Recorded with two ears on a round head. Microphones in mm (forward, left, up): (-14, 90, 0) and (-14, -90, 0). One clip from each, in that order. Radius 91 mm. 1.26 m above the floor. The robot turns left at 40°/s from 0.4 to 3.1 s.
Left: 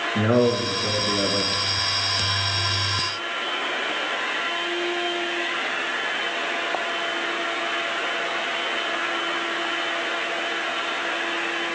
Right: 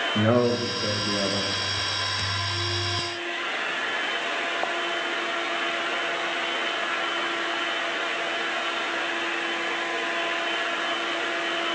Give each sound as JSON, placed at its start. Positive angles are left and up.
{"t": 0.1, "sound": "a man speaking", "azimuth_deg": -10, "distance_m": 1.9}